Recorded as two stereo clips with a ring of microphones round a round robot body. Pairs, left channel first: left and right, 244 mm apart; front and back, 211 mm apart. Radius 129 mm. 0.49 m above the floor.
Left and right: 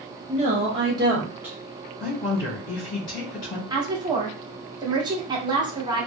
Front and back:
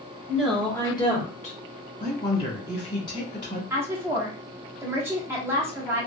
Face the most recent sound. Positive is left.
turn(degrees=-125)